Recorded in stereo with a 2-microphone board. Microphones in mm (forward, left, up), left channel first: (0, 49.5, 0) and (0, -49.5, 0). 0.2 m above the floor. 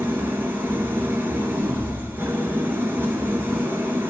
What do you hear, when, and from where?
0.0 s an engine running: 20° right (ahead or behind), 2.0 m